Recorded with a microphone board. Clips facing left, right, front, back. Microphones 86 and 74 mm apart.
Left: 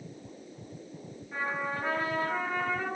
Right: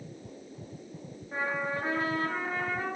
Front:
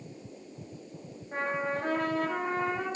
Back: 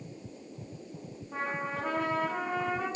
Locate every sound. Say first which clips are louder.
1.3 s a trumpet: right 1 dB, front 3 dB; 25° right, 1.3 m